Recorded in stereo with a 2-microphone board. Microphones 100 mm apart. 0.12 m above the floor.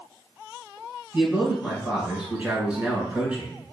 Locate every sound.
1.1 s a man speaking: 15° right (ahead or behind), 1.2 m